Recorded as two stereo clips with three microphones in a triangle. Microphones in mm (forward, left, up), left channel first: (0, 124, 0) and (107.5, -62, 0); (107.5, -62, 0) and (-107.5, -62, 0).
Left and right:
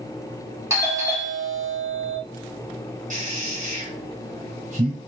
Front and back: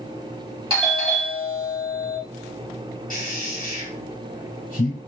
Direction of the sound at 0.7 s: 130° right.